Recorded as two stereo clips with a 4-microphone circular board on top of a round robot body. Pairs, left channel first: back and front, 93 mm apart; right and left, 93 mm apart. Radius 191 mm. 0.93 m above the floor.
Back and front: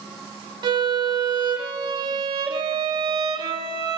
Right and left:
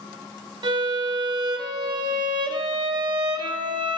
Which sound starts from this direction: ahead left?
A violin, at 0.6 s.